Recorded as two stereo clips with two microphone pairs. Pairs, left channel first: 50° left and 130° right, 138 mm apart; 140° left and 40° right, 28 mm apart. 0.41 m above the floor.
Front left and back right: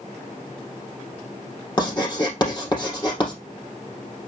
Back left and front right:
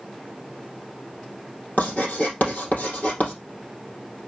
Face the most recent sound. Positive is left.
turn(degrees=110)